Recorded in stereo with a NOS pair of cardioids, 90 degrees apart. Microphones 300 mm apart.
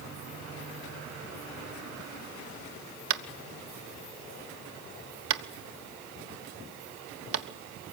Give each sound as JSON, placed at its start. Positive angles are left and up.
{"t": 3.1, "sound": "tapping", "azimuth_deg": -50, "distance_m": 1.3}